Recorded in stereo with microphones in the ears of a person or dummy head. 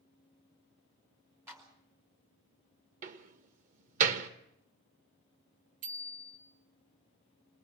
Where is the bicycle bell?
45° right (ahead or behind), 2.5 m.